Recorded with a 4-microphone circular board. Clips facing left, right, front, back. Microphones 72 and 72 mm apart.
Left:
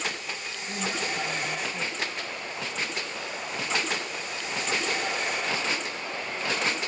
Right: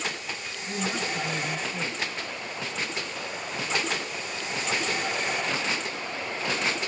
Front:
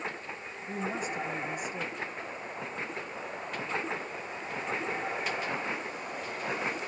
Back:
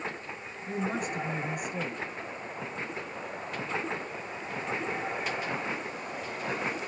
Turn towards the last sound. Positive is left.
turn(degrees=-155)